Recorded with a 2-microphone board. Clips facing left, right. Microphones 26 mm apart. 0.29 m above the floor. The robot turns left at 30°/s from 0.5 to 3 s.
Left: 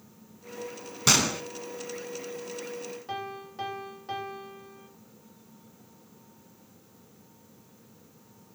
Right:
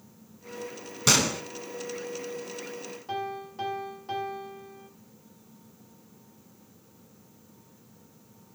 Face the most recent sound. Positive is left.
turn(degrees=10)  # may be behind; listen again after turning